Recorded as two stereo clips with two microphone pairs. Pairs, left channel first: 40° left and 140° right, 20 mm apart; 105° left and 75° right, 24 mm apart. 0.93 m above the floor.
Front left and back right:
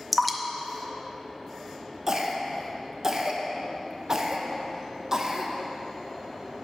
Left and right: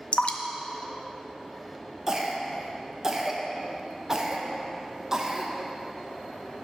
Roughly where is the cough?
Behind right.